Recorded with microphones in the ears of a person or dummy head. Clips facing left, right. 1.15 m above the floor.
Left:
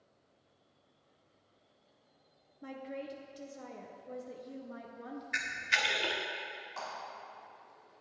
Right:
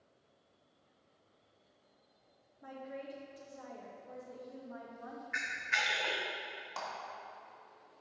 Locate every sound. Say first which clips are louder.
2.6 s a woman speaking: left 3 dB; 35° left (ahead or behind), 0.7 m
5.3 s a camera shutter: left 2 dB; 40° left (ahead or behind), 0.6 m
6.8 s a clap: even; 85° right, 2 m